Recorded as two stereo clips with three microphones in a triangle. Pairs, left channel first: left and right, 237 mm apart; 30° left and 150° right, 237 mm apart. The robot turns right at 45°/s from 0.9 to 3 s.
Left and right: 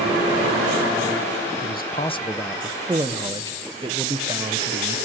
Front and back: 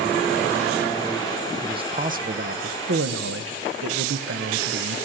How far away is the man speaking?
About 0.8 m.